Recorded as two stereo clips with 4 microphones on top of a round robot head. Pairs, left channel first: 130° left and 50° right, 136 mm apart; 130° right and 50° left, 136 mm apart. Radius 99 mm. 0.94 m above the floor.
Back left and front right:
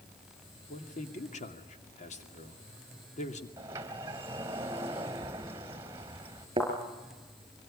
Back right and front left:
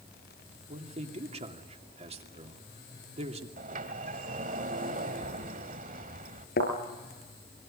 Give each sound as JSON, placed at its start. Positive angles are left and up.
{"t": 0.7, "sound": "a man speaking", "azimuth_deg": 95, "distance_m": 2.5}
{"t": 3.6, "sound": "a sliding door", "azimuth_deg": 20, "distance_m": 1.6}
{"t": 6.6, "sound": "a thud", "azimuth_deg": -115, "distance_m": 5.0}